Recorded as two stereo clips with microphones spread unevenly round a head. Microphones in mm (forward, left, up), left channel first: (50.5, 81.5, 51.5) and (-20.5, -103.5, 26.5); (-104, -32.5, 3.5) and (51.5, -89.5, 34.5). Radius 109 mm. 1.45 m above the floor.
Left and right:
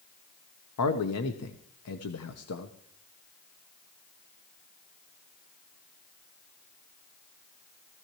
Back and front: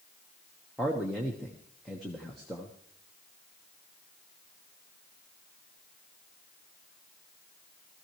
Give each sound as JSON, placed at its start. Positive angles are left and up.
{"t": 0.8, "sound": "a man speaking", "azimuth_deg": 70, "distance_m": 1.0}